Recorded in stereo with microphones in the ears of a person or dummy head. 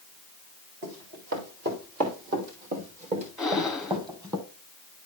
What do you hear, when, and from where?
0.8 s running footsteps: 60° right (ahead or behind), 4 m; by 4.4 s 15° right (ahead or behind), 2.5 m
3.4 s breathing: centre (ahead or behind), 1.1 m